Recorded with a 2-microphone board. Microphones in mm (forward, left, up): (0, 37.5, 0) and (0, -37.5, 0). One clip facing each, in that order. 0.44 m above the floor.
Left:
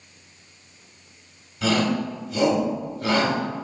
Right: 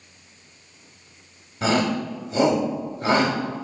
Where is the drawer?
I don't hear a drawer.